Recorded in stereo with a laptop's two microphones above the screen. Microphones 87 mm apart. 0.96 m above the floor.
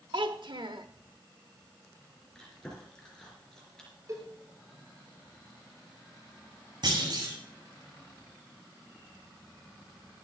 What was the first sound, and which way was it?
A child speaking, 70° right (ahead or behind).